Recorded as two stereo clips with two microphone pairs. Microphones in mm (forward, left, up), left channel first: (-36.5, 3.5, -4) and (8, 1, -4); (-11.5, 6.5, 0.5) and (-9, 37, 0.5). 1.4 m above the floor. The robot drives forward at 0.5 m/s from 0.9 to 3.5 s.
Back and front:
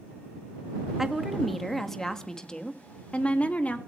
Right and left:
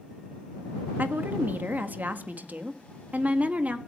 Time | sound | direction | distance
1.0 | a woman speaking | 80° left | 1.8 m